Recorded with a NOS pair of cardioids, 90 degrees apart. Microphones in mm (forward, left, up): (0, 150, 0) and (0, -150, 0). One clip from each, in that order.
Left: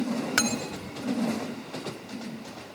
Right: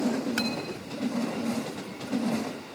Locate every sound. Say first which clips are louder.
0.4 s cutlery clinking: left 3 dB; 55° left